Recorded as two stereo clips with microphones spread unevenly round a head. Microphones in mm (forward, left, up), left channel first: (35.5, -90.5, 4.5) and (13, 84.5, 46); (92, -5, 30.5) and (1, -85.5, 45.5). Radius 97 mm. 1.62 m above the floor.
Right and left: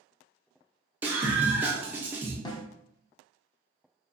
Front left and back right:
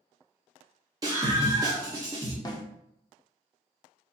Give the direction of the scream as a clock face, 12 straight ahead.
7 o'clock.